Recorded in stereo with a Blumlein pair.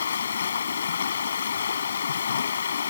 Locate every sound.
0.0 s running water: 70° left